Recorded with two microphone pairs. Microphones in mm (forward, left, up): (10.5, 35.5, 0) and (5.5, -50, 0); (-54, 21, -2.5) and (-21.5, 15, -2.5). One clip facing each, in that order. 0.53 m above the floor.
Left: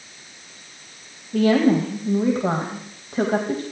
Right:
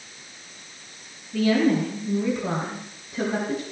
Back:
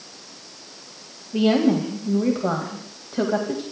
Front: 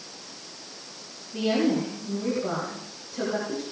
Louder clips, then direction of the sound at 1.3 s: Left 3 dB, back 5 dB; 120° left.